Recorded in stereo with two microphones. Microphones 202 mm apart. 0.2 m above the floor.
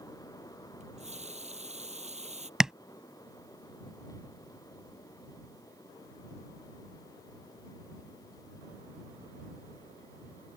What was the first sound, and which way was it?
A running tap, 35° right (ahead or behind).